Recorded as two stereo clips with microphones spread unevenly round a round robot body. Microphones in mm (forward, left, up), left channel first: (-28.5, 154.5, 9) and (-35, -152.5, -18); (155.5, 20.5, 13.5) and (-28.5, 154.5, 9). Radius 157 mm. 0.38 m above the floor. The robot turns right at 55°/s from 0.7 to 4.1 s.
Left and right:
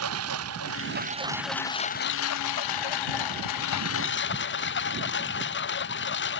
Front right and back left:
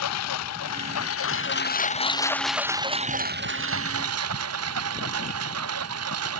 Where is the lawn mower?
45° right; by 6.4 s 145° left.